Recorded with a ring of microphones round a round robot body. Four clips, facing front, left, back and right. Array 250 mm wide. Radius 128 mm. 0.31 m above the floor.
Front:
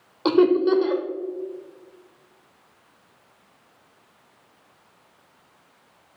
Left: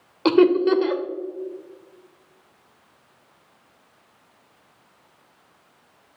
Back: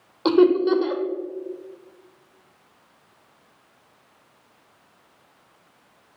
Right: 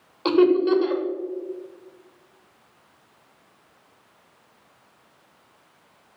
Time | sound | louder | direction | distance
0.2 | laughter | left 1 dB, back 1 dB | 95° left | 0.9 m